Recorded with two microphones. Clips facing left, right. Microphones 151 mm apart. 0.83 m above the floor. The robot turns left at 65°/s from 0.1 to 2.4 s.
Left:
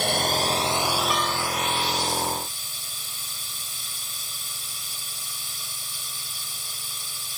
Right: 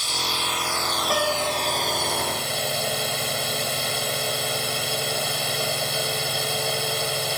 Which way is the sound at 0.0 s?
65° left.